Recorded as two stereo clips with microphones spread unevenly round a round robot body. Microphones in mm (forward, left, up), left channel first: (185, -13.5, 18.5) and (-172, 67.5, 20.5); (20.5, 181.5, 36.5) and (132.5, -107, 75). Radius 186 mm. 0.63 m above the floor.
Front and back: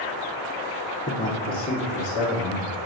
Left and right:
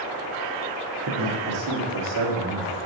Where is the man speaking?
85° right, 1.0 m; by 2.8 s 70° right, 2.0 m.